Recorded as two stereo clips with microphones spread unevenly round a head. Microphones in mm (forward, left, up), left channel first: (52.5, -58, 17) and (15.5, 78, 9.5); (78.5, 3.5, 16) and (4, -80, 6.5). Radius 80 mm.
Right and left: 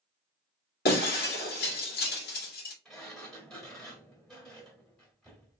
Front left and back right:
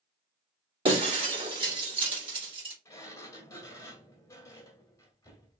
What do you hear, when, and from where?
0.8 s breaking glass: 95° right, 1.9 m
2.9 s a sliding door: 5° left, 1.4 m